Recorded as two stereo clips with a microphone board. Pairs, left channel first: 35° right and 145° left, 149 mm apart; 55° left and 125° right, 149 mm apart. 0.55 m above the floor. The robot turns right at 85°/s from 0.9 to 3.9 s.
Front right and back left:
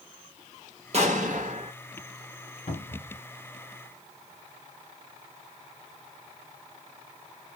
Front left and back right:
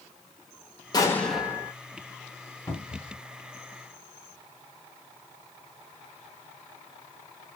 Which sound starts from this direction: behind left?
An explosion, at 0.9 s.